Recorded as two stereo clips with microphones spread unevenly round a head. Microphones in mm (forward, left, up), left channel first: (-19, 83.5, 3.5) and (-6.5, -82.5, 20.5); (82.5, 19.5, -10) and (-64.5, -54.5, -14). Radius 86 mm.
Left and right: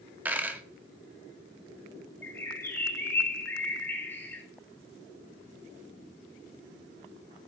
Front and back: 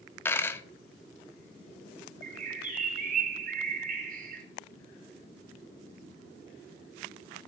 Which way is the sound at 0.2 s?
30° right.